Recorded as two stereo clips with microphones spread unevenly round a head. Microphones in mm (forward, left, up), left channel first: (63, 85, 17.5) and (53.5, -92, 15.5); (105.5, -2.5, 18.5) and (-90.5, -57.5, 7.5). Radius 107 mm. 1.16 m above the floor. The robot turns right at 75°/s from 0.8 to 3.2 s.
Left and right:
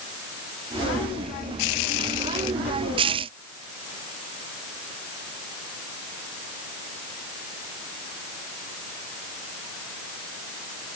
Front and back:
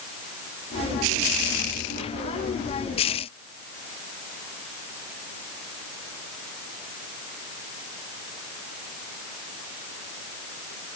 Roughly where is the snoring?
No snoring in this recording.